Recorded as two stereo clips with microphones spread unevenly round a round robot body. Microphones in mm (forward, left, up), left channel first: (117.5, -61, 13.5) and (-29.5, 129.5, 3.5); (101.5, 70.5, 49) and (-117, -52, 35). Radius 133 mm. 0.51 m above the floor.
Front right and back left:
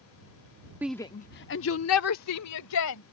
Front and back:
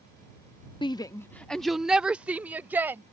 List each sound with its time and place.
0.8 s a shout: 70° left; by 3.0 s 70° right